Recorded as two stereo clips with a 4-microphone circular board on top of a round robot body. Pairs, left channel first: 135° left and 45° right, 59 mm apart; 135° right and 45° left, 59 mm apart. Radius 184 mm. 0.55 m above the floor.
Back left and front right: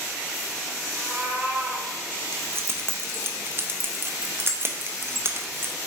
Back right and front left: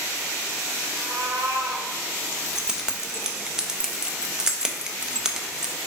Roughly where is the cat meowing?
Ahead.